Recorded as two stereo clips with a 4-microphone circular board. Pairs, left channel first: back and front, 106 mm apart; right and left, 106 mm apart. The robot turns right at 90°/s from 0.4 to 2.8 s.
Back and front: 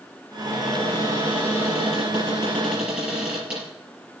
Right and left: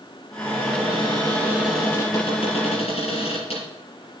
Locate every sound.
0.4 s a cupboard door: 65° left, 6 m; by 3.7 s 80° right, 6 m